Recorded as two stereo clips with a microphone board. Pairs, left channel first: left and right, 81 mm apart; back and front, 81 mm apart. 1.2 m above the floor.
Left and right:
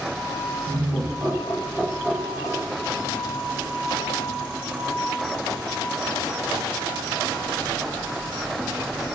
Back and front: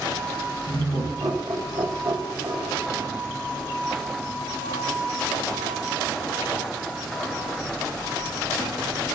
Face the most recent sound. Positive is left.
turn(degrees=-10)